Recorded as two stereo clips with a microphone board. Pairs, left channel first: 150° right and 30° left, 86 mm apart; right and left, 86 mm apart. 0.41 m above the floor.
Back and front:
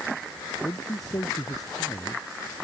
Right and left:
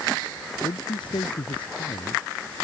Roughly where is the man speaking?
Right.